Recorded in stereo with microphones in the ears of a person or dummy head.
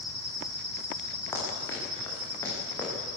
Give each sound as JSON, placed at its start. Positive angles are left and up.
{"t": 1.3, "sound": "running footsteps", "side_deg": 20, "distance_m": 9.0}